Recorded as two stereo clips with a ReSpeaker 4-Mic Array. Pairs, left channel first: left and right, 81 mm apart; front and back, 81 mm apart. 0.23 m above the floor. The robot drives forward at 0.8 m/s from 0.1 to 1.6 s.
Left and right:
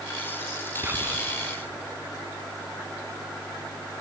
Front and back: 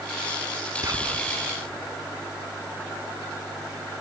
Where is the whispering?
145° right, 1.9 m; by 1.3 s 150° right, 2 m.